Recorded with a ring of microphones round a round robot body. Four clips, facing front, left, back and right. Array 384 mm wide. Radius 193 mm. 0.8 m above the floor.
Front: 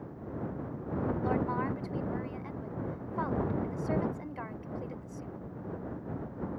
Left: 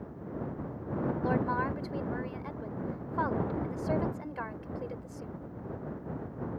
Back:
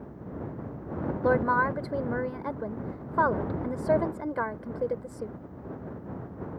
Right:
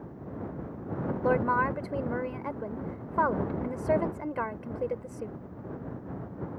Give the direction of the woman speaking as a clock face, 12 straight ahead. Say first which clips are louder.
Right 7 dB, back 11 dB; 5 o'clock.